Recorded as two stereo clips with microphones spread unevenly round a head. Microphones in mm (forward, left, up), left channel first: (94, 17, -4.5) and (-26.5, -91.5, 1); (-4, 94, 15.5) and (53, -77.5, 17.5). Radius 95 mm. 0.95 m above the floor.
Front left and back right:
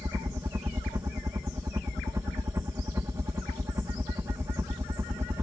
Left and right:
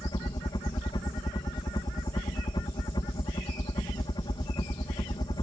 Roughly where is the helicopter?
Behind.